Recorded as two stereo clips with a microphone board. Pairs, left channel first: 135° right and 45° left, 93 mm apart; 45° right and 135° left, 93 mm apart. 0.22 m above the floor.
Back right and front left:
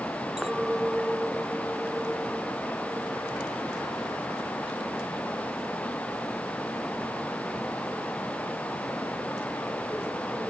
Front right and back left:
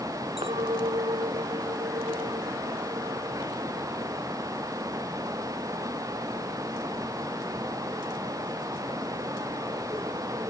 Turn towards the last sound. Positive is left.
turn(degrees=130)